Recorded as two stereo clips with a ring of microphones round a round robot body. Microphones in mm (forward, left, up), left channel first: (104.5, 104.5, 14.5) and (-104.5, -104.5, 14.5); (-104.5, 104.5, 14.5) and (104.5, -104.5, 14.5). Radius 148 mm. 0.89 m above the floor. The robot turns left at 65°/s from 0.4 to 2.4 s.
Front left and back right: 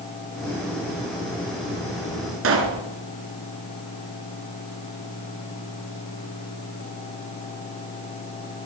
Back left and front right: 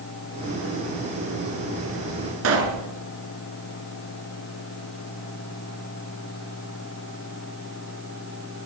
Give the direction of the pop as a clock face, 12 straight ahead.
3 o'clock.